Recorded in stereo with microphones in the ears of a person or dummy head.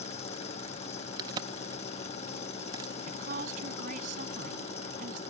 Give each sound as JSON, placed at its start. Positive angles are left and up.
{"t": 0.0, "sound": "an engine running", "side_deg": 45}
{"t": 1.2, "sound": "a crack", "side_deg": -20}
{"t": 3.1, "sound": "a woman speaking", "side_deg": -40}